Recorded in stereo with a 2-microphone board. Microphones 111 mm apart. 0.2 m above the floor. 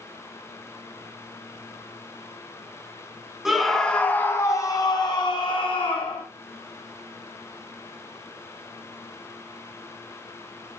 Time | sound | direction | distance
3.5 | a scream | 5° right (ahead or behind) | 1.7 m